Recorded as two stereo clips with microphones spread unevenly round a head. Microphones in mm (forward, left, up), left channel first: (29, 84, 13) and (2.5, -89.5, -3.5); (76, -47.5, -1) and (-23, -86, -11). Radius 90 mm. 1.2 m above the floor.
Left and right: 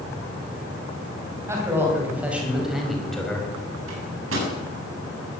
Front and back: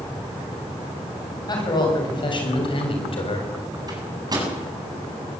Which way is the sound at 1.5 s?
25° right.